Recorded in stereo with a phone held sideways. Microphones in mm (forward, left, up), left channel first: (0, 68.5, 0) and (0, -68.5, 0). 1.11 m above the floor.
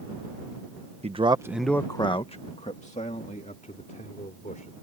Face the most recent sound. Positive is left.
turn(degrees=70)  # may be behind; listen again after turning